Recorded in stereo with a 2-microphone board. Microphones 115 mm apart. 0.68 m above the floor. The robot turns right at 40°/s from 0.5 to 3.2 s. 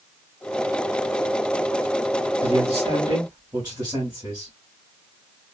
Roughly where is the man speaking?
Ahead right.